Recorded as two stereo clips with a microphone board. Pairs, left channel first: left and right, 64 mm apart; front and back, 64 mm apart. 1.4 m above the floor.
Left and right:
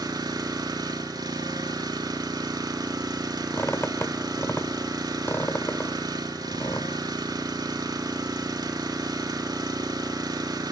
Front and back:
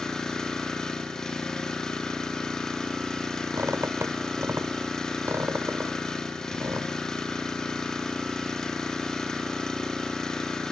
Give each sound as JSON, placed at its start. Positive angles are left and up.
{"t": 0.0, "sound": "an engine running", "azimuth_deg": -80, "distance_m": 3.0}
{"t": 3.5, "sound": "a squeak", "azimuth_deg": 140, "distance_m": 1.8}